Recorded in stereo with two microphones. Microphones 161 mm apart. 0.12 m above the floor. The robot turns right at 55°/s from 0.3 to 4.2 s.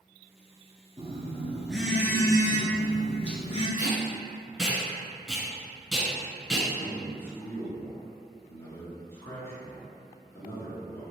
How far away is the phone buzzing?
About 0.8 m.